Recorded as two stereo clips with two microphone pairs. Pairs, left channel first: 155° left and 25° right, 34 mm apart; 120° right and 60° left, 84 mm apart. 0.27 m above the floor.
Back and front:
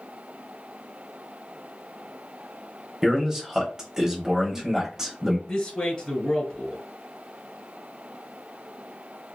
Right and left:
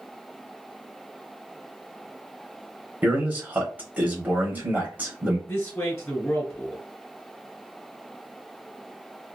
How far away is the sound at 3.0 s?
About 1.1 m.